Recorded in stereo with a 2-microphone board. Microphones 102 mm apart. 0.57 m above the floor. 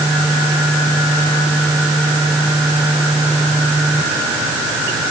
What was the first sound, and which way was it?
Only background noise.